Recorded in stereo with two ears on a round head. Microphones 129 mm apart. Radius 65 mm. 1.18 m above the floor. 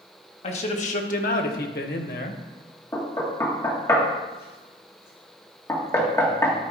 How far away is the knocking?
About 1.8 m.